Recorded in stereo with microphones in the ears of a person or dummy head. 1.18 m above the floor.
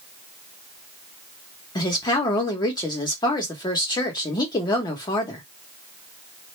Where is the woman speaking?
25° left (ahead or behind), 1.1 m.